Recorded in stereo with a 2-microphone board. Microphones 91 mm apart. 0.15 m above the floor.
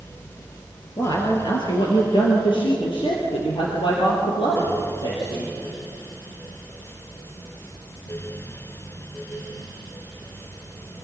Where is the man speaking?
50° left (ahead or behind), 3.5 m; by 5.5 s 75° left (ahead or behind), 7.5 m.